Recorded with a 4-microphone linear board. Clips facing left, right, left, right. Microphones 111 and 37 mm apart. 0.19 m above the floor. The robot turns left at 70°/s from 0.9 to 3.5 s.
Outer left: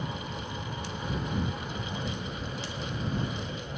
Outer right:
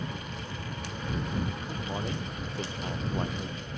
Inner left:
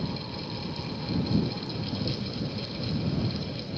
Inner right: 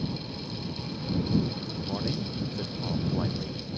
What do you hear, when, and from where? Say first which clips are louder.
1.7 s a man speaking: outer right 2 dB, inner right 1 dB; 20° right; by 3.6 s 150° right